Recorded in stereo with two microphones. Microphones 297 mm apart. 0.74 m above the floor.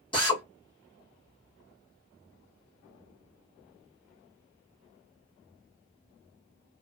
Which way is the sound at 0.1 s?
15° left (ahead or behind).